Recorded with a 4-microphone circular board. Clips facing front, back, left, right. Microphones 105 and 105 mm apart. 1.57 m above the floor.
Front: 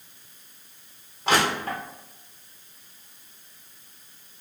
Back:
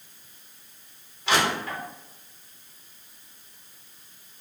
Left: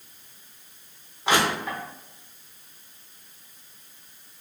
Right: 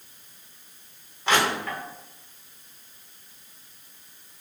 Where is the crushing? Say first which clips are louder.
Front 1 dB, even; 20° left, 0.9 m.